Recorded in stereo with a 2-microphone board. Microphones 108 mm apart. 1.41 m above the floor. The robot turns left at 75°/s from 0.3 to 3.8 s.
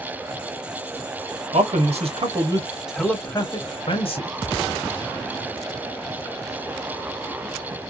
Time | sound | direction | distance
1.5 | a man speaking | 70° right (ahead or behind) | 1.0 m